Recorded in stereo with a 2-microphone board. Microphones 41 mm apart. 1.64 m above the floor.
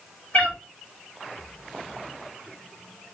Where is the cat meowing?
35° left (ahead or behind), 1.4 m.